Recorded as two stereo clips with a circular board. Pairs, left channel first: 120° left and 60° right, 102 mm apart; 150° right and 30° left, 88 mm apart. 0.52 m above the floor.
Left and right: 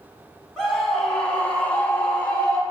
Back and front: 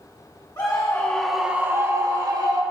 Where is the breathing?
No breathing in this recording.